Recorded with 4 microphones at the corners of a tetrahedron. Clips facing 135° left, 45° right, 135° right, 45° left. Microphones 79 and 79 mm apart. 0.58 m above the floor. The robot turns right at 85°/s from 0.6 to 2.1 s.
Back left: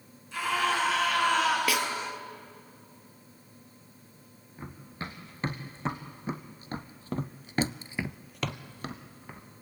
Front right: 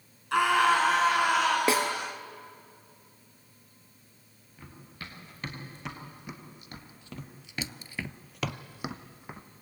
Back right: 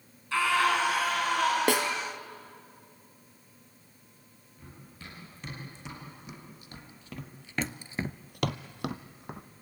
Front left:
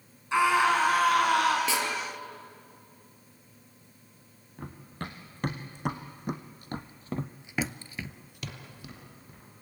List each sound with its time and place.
0.3 s a scream: 25° right, 7.5 m; by 1.6 s 60° left, 7.5 m
1.7 s a snare drum: 105° right, 2.5 m; by 1.9 s 85° right, 2.5 m
4.6 s running footsteps: 75° left, 4 m; by 9.5 s 115° right, 2.5 m